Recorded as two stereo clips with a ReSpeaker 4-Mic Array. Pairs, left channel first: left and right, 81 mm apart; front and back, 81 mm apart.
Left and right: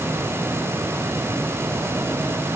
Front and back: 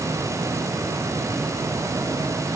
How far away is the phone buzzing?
No phone buzzing in this recording.